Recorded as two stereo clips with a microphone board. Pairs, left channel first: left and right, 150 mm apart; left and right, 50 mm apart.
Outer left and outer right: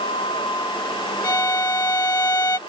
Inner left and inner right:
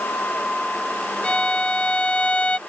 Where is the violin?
25° left (ahead or behind).